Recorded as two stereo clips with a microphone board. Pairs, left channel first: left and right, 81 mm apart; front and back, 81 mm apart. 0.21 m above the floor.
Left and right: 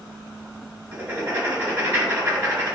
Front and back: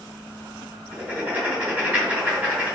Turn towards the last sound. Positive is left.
turn(degrees=-125)